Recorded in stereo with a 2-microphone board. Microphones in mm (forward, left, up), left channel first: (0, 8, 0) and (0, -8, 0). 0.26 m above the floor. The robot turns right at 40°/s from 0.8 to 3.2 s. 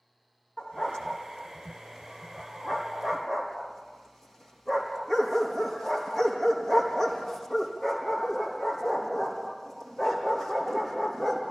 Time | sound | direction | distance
0.6 | a dog barking | 60° left (ahead or behind) | 5 m